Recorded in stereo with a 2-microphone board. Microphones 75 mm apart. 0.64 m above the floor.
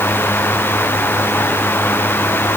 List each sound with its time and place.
Only background noise.